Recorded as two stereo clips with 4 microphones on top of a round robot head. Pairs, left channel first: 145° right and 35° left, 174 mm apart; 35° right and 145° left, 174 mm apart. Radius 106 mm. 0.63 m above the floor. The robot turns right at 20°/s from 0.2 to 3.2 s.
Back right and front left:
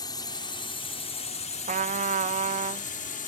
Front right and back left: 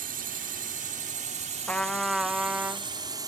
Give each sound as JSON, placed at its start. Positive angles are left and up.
{"t": 0.0, "sound": "a drone", "azimuth_deg": 155}
{"t": 1.7, "sound": "a trumpet", "azimuth_deg": 45}